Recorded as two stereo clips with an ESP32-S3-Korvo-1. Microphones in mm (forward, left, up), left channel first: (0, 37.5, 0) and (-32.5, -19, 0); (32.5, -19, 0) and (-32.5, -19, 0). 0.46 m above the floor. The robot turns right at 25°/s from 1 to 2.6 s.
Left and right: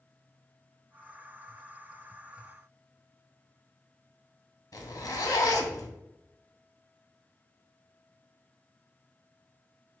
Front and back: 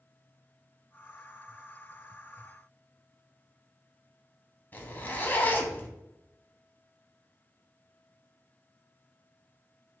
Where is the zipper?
55° left, 0.7 m.